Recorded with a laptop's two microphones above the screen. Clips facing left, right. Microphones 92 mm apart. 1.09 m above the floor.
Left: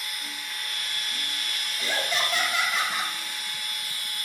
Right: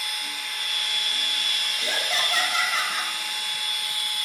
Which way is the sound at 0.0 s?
75° right (ahead or behind).